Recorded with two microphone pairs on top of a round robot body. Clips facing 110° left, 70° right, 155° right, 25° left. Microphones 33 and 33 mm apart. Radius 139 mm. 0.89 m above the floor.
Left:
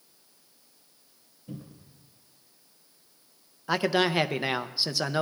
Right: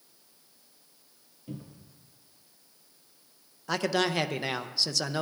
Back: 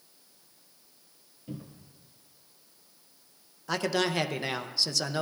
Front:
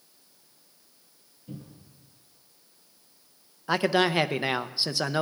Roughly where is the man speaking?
Left.